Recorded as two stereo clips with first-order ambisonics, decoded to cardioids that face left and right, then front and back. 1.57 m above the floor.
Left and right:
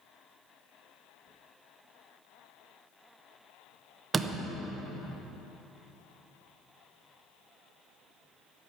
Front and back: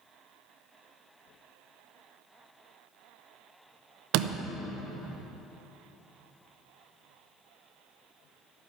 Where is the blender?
I don't hear a blender.